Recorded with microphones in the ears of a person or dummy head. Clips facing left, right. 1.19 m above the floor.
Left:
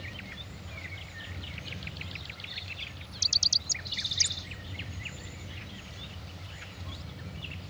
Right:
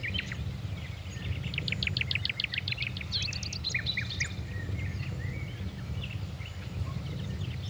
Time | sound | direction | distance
0.0 | a fan | 60° right (ahead or behind) | 6 m